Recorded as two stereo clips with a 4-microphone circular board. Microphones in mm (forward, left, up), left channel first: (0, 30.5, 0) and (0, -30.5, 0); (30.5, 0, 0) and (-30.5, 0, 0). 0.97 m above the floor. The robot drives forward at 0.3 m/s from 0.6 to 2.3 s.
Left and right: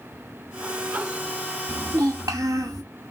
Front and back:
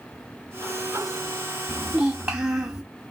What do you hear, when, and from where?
1.7 s a child speaking: 110° right, 0.5 m; by 2.8 s 125° right, 0.6 m